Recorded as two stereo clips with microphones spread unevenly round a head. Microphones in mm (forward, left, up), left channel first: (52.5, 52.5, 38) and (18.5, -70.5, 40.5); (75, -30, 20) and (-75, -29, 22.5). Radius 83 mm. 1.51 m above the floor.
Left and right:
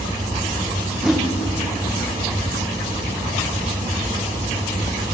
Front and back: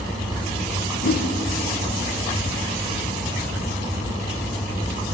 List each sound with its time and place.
1.0 s a whoosh: 20° right, 1.9 m